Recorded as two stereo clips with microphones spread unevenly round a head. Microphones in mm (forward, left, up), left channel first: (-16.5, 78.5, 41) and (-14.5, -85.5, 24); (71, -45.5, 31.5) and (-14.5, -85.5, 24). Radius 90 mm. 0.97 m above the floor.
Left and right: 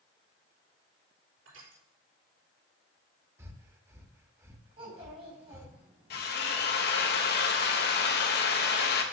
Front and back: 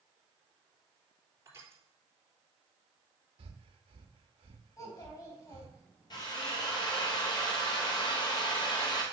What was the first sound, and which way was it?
Crushing, 95° right.